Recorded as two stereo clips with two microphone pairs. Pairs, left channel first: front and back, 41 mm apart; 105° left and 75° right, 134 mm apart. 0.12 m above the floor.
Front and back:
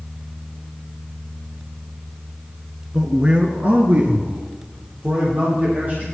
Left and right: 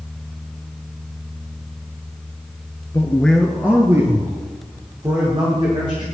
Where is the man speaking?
120° left, 1.2 m; by 6.0 s 130° right, 5 m.